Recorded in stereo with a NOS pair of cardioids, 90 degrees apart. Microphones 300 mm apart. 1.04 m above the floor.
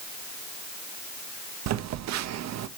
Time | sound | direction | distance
1.7 | a phone buzzing | 65° right | 0.6 m